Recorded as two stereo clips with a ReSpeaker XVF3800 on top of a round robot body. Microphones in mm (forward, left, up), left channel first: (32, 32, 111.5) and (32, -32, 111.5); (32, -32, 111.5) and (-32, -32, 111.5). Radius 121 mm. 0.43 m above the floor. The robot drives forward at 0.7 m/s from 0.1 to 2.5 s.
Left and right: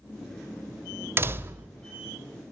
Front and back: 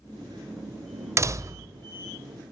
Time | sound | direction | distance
1.2 | a door slam | 140° right | 1.7 m